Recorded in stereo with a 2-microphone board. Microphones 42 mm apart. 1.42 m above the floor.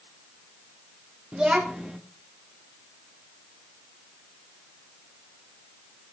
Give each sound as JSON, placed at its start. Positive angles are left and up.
{"t": 1.3, "sound": "a child speaking", "side_deg": -30, "distance_m": 1.8}